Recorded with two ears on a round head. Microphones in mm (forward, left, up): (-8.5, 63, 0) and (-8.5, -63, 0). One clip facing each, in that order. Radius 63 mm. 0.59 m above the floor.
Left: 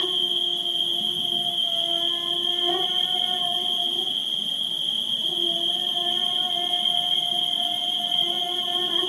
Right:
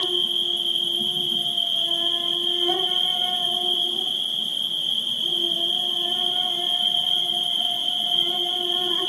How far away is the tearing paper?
No tearing paper in this recording.